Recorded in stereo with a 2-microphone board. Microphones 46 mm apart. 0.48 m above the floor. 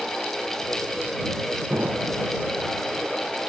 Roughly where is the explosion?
Right.